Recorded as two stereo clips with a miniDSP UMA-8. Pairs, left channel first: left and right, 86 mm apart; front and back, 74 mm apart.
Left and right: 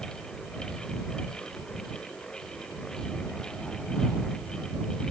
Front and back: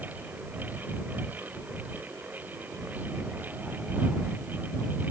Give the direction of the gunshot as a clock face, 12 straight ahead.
I don't hear a gunshot.